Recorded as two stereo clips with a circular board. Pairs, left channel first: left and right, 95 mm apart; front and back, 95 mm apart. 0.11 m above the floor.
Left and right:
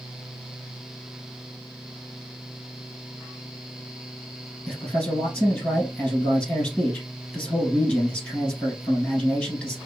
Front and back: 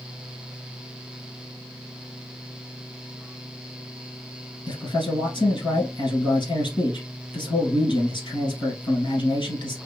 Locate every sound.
4.7 s a man speaking: 15° left, 2 m